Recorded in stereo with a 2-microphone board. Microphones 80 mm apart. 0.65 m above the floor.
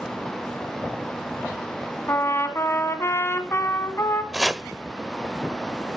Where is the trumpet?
35° left (ahead or behind), 1.6 m.